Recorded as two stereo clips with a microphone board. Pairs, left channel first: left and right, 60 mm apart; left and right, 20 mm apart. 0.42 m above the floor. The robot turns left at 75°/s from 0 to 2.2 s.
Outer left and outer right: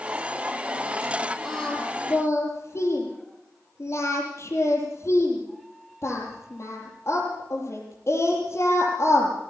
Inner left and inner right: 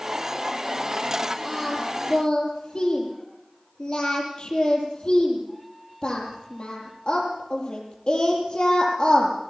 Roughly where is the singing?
Centre.